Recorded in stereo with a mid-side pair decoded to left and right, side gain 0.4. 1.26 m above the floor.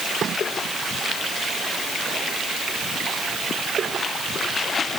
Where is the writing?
No writing in this recording.